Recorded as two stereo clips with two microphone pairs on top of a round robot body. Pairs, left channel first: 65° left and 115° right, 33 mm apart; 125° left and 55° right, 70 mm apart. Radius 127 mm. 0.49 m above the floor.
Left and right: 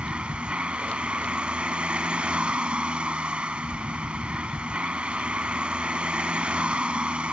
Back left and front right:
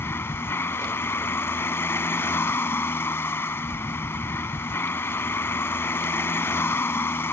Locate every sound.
0.0 s a vehicle: straight behind